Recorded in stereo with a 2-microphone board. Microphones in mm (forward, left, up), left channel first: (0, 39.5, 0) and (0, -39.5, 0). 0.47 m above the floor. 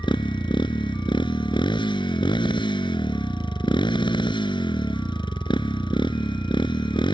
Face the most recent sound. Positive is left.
turn(degrees=85)